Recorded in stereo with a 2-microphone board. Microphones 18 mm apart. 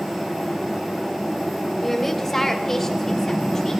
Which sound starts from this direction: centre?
A woman speaking, at 1.8 s.